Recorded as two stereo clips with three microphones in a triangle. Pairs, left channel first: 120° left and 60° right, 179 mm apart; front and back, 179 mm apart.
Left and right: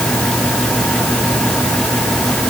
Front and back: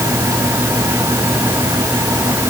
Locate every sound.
Only background noise.